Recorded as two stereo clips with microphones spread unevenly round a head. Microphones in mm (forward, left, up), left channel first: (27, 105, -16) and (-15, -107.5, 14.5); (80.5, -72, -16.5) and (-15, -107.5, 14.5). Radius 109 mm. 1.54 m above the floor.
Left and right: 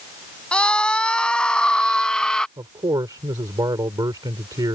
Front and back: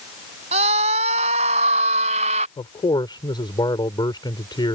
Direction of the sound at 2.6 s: 30° right.